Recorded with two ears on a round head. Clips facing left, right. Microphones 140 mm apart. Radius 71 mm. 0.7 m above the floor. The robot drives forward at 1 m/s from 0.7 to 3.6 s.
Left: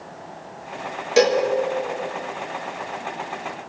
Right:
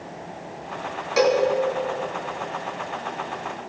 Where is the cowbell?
30° left (ahead or behind), 2.0 m; by 1.4 s 35° left (ahead or behind), 1.8 m.